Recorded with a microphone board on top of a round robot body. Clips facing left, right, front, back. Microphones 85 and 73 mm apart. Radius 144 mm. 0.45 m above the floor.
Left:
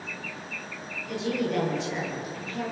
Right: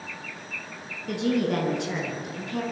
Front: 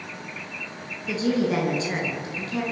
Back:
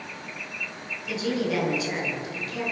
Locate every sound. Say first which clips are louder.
1.1 s a woman speaking: right 4 dB, front 4 dB; 55° right, 9.5 m